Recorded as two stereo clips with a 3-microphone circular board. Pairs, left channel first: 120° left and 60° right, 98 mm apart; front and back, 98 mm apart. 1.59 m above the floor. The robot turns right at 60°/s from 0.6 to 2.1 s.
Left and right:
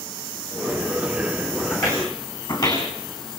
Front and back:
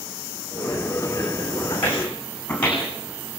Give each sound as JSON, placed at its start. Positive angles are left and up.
{"t": 1.7, "sound": "footsteps", "azimuth_deg": 60, "distance_m": 5.5}